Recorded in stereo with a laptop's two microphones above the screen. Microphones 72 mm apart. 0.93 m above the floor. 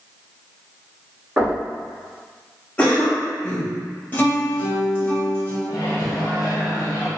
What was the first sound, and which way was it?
Knocking, 25° right (ahead or behind).